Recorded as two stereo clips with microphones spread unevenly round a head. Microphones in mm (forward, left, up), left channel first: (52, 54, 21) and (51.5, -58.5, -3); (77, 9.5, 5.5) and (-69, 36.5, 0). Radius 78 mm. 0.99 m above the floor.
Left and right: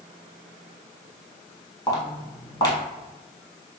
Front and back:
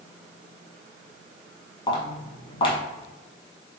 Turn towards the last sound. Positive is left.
turn(degrees=40)